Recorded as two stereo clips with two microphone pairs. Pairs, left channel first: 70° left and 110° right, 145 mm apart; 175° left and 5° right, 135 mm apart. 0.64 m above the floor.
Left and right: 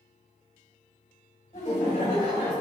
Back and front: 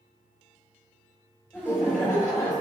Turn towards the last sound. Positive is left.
turn(degrees=125)